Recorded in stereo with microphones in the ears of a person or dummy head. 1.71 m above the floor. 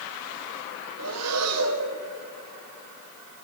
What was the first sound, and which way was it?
Breathing, 80° right.